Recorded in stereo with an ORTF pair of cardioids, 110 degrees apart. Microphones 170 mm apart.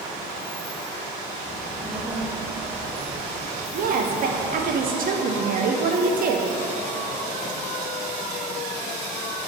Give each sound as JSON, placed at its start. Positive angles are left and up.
{"t": 1.4, "sound": "a child speaking", "azimuth_deg": 5, "distance_m": 1.5}
{"t": 3.7, "sound": "a woman speaking", "azimuth_deg": -50, "distance_m": 0.8}